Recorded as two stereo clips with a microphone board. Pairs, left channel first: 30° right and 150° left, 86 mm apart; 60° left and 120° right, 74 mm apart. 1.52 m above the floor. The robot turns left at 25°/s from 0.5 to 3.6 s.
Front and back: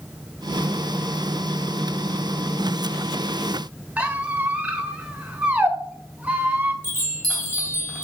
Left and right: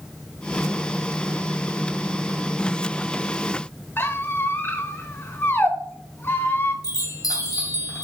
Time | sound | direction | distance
4.0 | a squeak | 90° left | 0.8 m
6.8 | a chime | 35° left | 2 m